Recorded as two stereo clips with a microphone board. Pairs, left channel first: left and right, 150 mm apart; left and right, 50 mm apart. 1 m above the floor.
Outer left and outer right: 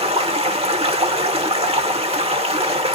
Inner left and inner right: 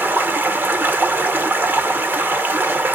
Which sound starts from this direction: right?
Running water, at 0.0 s.